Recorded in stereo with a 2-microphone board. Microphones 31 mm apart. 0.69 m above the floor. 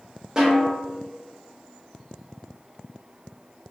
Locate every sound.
0.4 s a snare drum: 20° right (ahead or behind), 1.1 m